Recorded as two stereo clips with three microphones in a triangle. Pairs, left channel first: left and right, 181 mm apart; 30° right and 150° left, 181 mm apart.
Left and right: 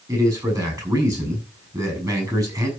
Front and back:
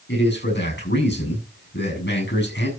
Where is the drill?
I don't hear a drill.